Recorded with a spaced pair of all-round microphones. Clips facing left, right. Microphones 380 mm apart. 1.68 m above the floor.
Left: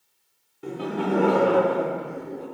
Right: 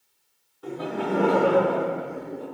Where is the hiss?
I don't hear a hiss.